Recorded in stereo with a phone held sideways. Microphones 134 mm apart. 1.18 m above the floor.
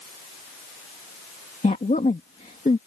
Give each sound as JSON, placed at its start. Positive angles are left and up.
{"t": 1.6, "sound": "a woman speaking", "side_deg": 75}